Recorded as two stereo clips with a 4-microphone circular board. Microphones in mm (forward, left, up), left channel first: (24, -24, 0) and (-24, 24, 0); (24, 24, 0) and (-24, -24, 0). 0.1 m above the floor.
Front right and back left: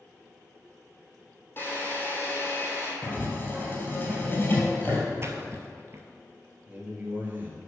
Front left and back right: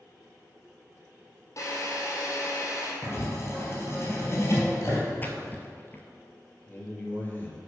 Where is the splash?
100° left, 0.9 m.